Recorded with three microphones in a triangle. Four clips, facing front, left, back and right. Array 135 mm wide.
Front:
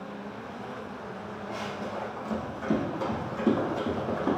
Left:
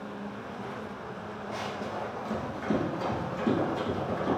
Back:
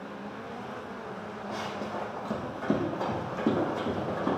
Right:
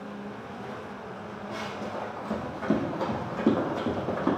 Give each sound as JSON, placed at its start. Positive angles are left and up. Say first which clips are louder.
{"t": 1.5, "sound": "running footsteps", "louder": "even, even", "azimuth_deg": 175, "distance_m": 2.5}